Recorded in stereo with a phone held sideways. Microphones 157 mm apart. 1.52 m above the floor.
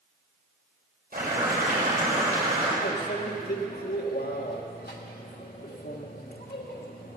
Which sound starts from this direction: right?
Boiling, at 1.1 s.